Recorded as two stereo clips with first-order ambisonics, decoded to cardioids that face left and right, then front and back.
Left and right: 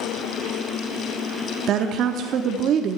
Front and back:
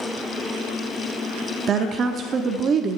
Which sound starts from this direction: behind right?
A woman speaking, at 1.7 s.